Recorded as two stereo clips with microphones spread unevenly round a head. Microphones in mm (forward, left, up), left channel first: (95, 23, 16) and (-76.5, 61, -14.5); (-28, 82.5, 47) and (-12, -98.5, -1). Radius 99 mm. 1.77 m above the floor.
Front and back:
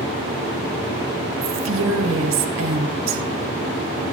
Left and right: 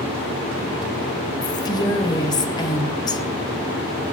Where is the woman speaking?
160° left, 1.4 m.